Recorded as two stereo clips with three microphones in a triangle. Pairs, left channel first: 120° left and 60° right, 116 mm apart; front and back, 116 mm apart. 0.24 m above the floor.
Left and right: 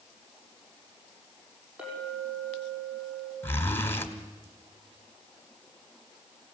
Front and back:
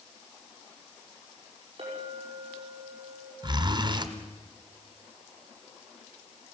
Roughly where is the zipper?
Behind.